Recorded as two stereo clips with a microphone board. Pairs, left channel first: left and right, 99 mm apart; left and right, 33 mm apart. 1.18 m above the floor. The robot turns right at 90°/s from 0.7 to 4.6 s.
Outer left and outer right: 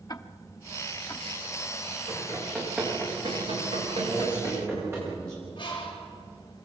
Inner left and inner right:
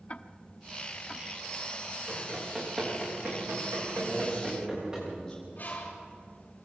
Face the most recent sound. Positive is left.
turn(degrees=50)  # may be behind; listen again after turning